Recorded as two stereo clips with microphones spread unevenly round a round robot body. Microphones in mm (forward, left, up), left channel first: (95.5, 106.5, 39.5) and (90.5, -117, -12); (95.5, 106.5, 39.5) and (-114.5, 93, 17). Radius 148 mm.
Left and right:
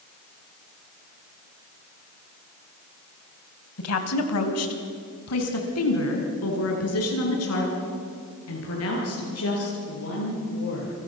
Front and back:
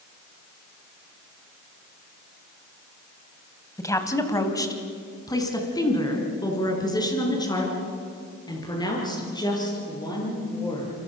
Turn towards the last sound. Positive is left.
turn(degrees=75)